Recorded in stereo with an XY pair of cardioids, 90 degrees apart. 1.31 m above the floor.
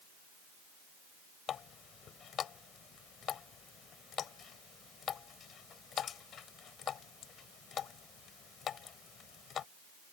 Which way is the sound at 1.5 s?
65° left.